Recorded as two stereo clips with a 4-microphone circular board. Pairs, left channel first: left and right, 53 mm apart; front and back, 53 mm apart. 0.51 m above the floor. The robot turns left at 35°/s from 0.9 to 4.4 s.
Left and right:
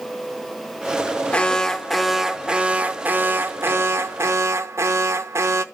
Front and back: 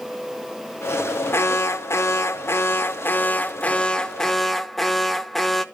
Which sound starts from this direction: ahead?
An alarm, at 1.3 s.